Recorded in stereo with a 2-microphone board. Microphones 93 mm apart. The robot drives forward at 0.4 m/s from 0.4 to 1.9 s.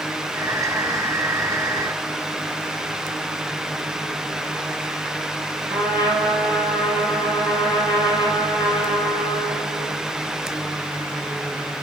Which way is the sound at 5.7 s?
35° right (ahead or behind).